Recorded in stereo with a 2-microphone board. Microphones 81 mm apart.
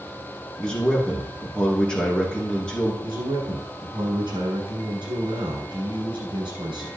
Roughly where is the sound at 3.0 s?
Right.